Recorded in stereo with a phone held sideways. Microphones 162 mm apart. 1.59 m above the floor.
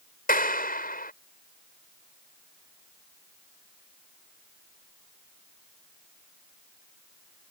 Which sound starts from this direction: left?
A clap, at 0.3 s.